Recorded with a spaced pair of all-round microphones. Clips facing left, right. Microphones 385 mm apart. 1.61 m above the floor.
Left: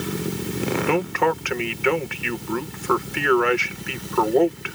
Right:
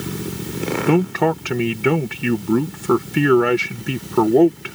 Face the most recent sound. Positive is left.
turn(degrees=-50)  # may be behind; listen again after turning